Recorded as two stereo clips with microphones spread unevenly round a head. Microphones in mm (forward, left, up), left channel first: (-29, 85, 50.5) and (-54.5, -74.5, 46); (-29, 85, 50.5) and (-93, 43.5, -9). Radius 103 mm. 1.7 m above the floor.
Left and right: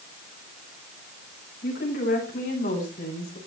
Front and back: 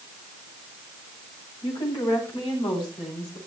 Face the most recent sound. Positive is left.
turn(degrees=40)